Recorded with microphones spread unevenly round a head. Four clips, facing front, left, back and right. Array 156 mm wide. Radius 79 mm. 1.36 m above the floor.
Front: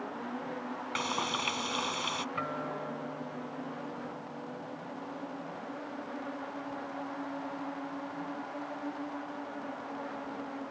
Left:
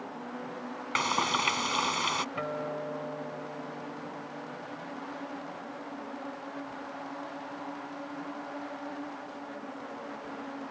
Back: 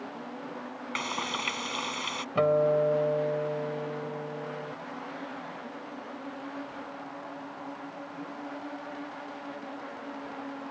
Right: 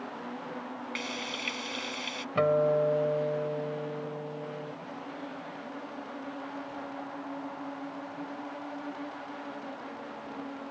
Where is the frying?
90° left.